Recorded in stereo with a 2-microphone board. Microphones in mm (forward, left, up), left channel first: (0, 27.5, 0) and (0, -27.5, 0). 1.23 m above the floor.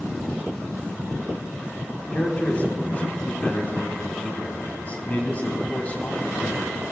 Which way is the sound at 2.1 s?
30° left (ahead or behind).